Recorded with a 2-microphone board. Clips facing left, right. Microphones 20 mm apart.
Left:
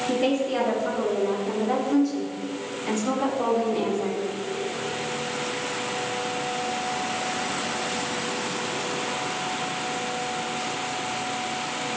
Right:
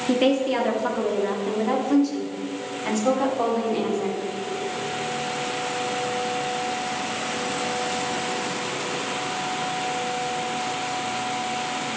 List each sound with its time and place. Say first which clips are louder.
0.1 s a woman speaking: right 4 dB; 90° right, 3 m; by 4.3 s 45° right (ahead or behind), 4.5 m